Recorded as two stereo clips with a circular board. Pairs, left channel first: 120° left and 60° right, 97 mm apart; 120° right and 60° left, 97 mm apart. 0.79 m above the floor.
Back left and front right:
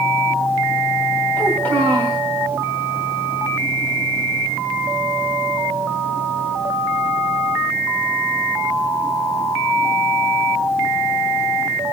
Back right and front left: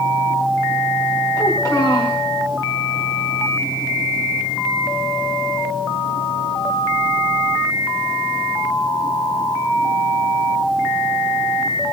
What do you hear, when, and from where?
1.4 s a child speaking: 170° right, 3 m